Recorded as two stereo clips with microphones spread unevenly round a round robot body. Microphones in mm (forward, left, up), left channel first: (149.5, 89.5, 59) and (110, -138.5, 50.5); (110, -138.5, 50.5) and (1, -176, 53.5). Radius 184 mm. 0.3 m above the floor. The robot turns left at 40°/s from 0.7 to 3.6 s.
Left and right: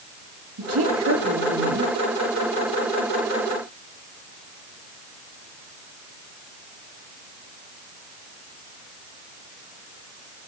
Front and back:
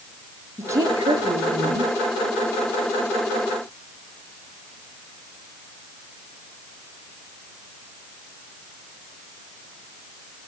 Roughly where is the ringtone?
No ringtone in this recording.